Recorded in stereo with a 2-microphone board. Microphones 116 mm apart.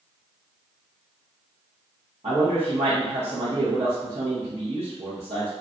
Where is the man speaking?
60° right (ahead or behind), 0.9 m.